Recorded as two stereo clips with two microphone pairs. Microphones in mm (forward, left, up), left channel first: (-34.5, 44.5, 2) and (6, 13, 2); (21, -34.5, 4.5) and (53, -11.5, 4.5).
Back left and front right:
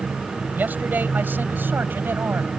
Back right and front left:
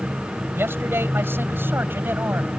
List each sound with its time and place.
0.5 s a man speaking: 20° left; by 2.5 s 10° left